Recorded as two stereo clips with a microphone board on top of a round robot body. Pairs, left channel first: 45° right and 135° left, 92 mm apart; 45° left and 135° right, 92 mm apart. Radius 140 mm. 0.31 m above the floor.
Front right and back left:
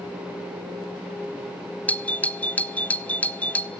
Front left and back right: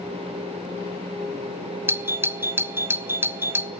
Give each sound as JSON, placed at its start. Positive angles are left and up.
{"t": 1.9, "sound": "a doorbell", "azimuth_deg": -100, "distance_m": 1.5}